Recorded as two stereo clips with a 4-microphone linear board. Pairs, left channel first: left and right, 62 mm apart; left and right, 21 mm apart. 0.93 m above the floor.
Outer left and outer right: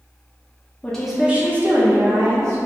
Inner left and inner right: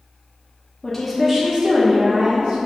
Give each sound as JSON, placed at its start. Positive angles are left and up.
{"t": 0.8, "sound": "a woman speaking", "side_deg": 15, "distance_m": 0.6}